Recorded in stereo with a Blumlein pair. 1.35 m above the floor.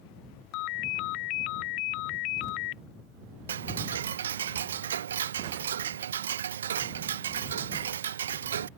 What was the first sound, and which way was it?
A ringtone, 40° left.